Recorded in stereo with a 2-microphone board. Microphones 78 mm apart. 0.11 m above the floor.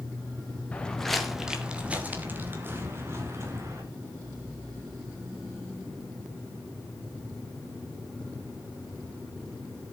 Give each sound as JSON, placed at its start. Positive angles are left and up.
{"t": 0.7, "sound": "footsteps", "side_deg": 15, "distance_m": 1.8}